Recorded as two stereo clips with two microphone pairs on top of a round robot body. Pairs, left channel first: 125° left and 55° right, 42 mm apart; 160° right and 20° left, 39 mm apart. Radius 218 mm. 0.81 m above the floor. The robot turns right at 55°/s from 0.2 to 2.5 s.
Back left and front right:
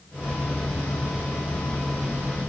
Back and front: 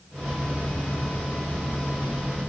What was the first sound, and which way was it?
Only background noise.